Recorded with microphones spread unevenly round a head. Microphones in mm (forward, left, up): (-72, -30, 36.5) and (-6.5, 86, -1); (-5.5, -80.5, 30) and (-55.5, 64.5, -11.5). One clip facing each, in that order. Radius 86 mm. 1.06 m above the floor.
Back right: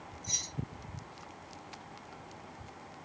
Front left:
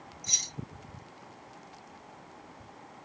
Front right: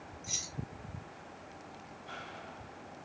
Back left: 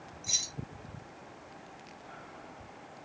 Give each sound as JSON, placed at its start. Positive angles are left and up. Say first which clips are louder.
{"t": 0.2, "sound": "keys jangling", "louder": "back right 1 dB, even", "azimuth_deg": 25, "distance_m": 0.6}